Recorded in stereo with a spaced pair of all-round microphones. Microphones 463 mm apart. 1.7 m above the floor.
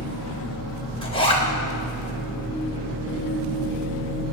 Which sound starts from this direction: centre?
A zipper, at 1.0 s.